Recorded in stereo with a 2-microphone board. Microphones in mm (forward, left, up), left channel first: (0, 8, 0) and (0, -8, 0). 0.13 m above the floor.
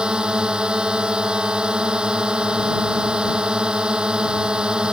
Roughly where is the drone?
Right.